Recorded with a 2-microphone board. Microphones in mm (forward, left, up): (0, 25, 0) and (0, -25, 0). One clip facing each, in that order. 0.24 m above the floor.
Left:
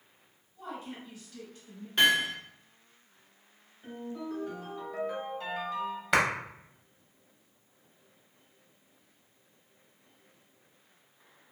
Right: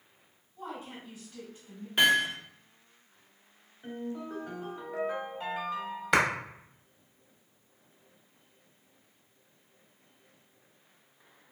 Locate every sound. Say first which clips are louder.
0.6 s a woman speaking: even; 20° right (ahead or behind), 1.3 m
2.0 s hammering: right 1 dB; 5° right (ahead or behind), 0.8 m
3.8 s a ringtone: right 1 dB; 20° right (ahead or behind), 1.0 m
6.1 s a clap: right 1 dB; centre (ahead or behind), 0.7 m